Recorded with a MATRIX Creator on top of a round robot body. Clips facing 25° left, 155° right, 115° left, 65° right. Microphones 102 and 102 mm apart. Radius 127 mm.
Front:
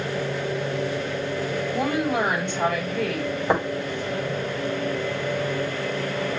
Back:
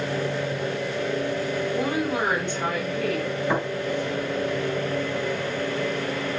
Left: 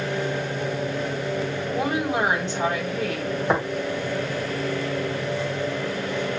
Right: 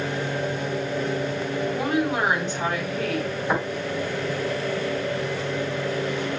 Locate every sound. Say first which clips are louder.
1.7 s a woman speaking: front 4 dB, left 1 dB; 50° left, 4 m
3.5 s tapping: front 4 dB, left 2 dB; 55° left, 3.5 m